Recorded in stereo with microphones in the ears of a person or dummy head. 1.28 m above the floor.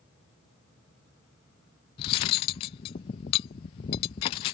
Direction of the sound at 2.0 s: 25° left (ahead or behind).